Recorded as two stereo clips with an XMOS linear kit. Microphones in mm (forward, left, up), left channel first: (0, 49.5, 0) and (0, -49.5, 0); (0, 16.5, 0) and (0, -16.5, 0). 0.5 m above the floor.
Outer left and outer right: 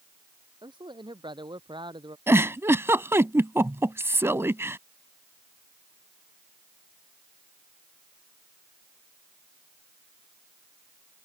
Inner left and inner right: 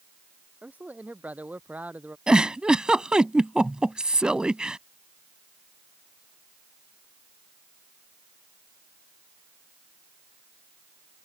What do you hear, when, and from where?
0.6 s a man speaking: 50° right (ahead or behind)
2.3 s a giggle: 25° right (ahead or behind)